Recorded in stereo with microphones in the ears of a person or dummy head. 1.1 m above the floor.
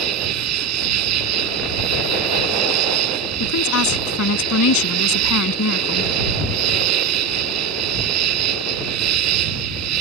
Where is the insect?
85° right.